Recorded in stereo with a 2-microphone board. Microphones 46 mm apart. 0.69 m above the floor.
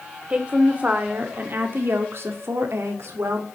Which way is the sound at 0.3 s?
20° right (ahead or behind).